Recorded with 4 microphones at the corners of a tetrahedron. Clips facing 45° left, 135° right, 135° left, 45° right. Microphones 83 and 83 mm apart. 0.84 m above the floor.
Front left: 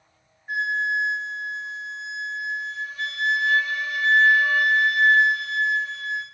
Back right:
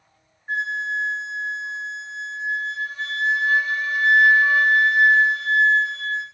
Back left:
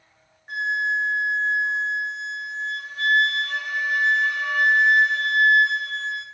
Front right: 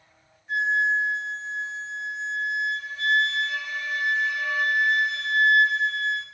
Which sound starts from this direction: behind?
A flute, at 0.5 s.